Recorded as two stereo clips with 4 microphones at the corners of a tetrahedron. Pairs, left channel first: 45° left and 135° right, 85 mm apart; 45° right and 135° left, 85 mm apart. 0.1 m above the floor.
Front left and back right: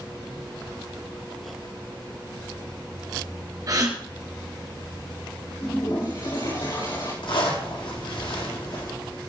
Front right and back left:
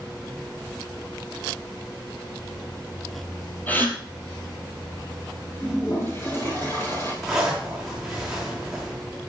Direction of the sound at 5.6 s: 15° left.